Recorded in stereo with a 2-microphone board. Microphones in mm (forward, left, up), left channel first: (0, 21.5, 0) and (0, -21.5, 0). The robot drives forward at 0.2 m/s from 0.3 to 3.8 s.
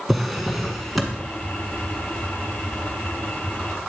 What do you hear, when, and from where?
0.1 s a drawer: centre (ahead or behind), 1.4 m